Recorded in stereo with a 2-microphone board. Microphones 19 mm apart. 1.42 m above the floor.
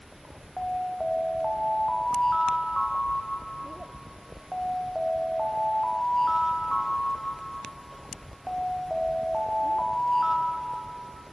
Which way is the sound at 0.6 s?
20° left (ahead or behind).